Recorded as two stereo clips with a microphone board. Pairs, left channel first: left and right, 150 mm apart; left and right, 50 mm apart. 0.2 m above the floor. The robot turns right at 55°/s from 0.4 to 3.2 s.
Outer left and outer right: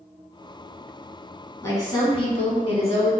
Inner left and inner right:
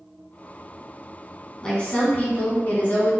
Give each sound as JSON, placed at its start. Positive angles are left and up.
{"t": 1.6, "sound": "a woman speaking", "azimuth_deg": 25, "distance_m": 1.8}